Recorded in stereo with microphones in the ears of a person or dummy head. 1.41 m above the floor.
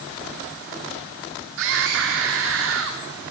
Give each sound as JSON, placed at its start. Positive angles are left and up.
{"t": 1.6, "sound": "a scream", "side_deg": -70, "distance_m": 3.0}